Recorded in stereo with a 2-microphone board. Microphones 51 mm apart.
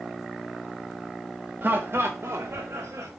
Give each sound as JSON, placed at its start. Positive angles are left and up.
{"t": 1.6, "sound": "laughter", "side_deg": -40, "distance_m": 0.7}